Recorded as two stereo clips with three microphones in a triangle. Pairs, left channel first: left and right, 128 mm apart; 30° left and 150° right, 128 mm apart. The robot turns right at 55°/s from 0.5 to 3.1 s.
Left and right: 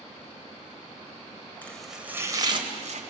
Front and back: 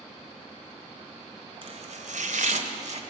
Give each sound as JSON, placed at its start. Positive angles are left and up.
{"t": 1.6, "sound": "chopping", "azimuth_deg": 165, "distance_m": 2.0}